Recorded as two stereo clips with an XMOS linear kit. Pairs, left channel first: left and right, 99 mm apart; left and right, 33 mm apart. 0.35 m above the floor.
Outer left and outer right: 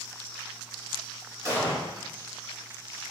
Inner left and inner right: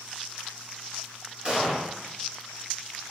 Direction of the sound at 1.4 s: 35° right (ahead or behind).